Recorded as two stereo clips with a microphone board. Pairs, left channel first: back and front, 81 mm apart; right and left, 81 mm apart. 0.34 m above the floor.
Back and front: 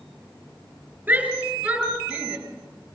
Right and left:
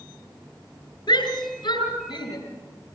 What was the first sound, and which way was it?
A shout, 70° right.